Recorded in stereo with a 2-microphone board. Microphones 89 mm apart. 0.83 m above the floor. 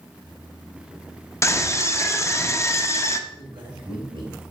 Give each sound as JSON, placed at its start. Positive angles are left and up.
{"t": 1.4, "sound": "a scream", "side_deg": 30, "distance_m": 0.7}
{"t": 3.3, "sound": "a man speaking", "side_deg": -70, "distance_m": 2.5}